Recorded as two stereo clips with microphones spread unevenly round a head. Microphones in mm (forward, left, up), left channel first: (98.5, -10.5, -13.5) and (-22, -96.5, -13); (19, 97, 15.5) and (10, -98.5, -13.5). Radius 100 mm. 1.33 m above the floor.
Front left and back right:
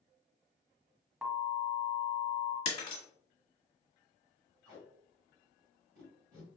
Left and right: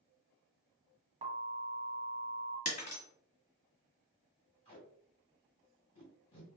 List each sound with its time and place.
1.2 s an alarm: 70° right, 1.3 m
2.6 s breaking glass: 65° left, 1.5 m
4.7 s tape being pulled: 145° left, 2 m